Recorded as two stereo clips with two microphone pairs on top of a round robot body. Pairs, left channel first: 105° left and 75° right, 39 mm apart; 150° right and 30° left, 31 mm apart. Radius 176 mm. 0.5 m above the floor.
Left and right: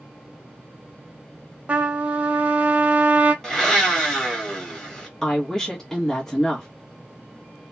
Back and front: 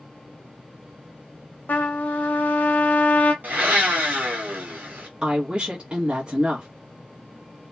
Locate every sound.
1.7 s a trumpet: 125° right, 0.7 m
3.4 s a blender: 25° left, 1.4 m
5.2 s a woman speaking: 35° left, 1.1 m